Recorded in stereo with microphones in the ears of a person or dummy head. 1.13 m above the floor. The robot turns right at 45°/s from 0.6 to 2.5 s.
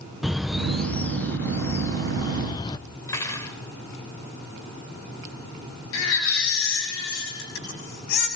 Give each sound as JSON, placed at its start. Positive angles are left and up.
{"t": 0.2, "sound": "a bird", "side_deg": 0, "distance_m": 0.7}
{"t": 3.1, "sound": "cutlery clinking", "side_deg": 15, "distance_m": 2.5}
{"t": 5.9, "sound": "a baby crying", "side_deg": 75, "distance_m": 6.5}